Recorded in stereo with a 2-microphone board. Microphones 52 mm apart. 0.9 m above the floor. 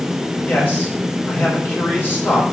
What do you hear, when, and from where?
0.5 s a man speaking: 40° left (ahead or behind), 4 m